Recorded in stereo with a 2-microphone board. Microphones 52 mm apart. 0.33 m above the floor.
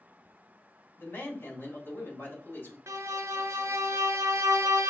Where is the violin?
70° right (ahead or behind), 0.6 m.